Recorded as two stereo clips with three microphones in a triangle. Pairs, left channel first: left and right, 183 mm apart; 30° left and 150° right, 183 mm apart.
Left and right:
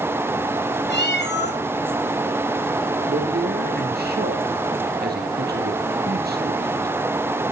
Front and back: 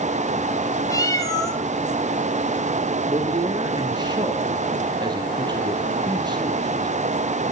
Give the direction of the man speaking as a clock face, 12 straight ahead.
3 o'clock.